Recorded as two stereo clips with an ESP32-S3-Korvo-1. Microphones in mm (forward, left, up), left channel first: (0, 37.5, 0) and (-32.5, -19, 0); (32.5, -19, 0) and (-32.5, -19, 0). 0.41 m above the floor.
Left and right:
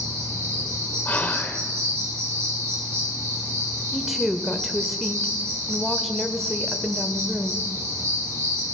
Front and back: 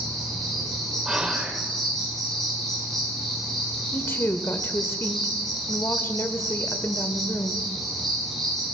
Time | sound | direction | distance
0.0 | an insect | 85° right | 5.5 m
1.1 | whispering | 105° left | 1.7 m
3.9 | a woman speaking | 35° right | 1.0 m